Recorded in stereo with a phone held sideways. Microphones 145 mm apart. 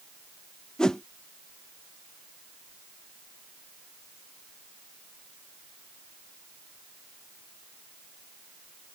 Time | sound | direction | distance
0.8 | a whoosh | 5° left (ahead or behind) | ?